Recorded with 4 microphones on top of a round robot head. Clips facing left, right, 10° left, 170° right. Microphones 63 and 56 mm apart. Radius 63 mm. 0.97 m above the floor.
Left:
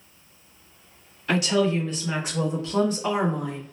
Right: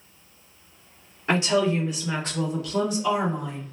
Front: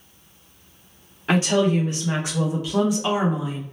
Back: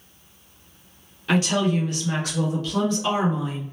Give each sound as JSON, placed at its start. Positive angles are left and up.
{"t": 1.3, "sound": "a woman speaking", "azimuth_deg": -50, "distance_m": 0.9}